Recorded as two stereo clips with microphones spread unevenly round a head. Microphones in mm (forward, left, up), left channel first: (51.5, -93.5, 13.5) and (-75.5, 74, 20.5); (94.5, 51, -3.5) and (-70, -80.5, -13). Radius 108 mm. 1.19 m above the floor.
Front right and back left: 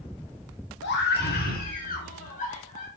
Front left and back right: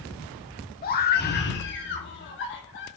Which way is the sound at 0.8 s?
10° right.